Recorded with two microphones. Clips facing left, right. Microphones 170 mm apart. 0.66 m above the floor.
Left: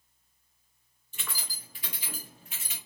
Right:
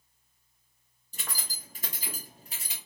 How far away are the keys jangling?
About 0.7 m.